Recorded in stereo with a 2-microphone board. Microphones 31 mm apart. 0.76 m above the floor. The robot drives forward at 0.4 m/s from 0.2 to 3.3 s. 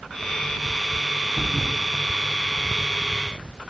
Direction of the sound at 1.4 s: 5° right (ahead or behind).